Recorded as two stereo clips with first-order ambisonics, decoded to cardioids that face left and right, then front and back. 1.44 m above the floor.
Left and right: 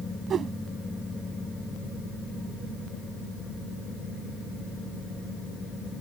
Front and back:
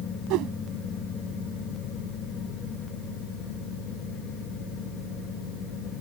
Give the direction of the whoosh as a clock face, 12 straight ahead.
5 o'clock.